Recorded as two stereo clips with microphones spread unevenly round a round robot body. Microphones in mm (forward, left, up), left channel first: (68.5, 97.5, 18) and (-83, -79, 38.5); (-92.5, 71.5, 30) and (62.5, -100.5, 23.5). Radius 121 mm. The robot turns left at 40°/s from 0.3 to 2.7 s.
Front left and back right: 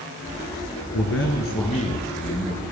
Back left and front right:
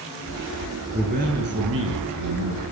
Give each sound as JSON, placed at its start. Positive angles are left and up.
{"t": 0.9, "sound": "a man speaking", "azimuth_deg": 15, "distance_m": 8.0}